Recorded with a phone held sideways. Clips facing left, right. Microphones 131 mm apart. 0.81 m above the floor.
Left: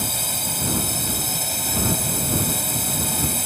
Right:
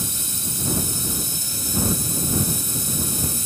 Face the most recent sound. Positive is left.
turn(degrees=60)  # may be behind; listen again after turning